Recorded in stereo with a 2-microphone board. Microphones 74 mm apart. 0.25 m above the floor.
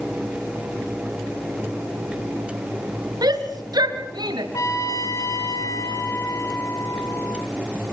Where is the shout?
65° right (ahead or behind), 3 m; by 4.4 s 75° right (ahead or behind), 3 m.